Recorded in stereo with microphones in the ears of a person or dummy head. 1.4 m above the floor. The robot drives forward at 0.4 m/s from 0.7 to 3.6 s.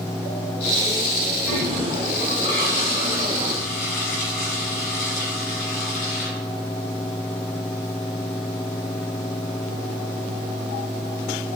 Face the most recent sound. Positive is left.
turn(degrees=50)  # may be behind; listen again after turning